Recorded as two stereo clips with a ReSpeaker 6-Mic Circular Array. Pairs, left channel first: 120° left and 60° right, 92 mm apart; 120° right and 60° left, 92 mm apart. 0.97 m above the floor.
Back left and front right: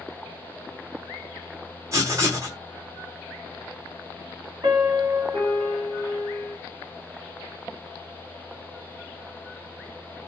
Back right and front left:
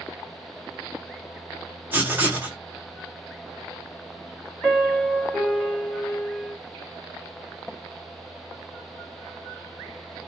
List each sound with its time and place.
1.9 s writing: 5° right, 1.3 m
4.6 s a piano: 35° right, 1.3 m